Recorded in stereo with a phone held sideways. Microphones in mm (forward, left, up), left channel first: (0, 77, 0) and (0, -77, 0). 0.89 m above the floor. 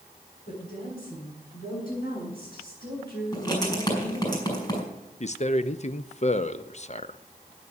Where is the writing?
25° left (ahead or behind), 5 m.